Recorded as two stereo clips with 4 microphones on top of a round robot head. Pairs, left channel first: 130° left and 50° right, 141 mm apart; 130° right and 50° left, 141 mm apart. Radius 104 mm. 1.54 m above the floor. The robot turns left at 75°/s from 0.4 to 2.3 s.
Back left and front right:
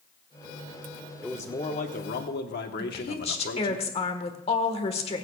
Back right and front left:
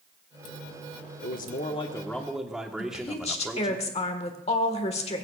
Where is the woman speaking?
Straight behind, 1.5 m.